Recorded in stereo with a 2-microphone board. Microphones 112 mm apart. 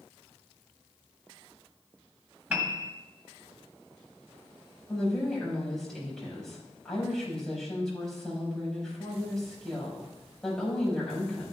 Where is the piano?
20° right (ahead or behind), 1.5 m.